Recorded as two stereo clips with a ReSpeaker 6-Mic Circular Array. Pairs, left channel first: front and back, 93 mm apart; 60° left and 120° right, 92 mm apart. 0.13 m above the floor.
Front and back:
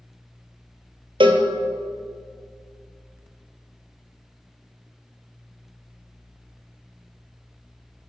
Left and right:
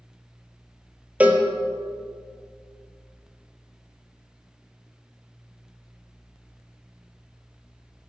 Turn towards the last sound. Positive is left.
turn(degrees=165)